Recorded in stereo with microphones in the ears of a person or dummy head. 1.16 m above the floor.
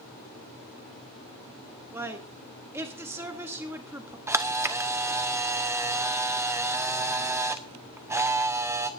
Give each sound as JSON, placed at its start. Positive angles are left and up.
{"t": 1.9, "sound": "a woman speaking", "side_deg": -10, "distance_m": 1.4}
{"t": 4.3, "sound": "a camera shutter", "side_deg": -10, "distance_m": 1.0}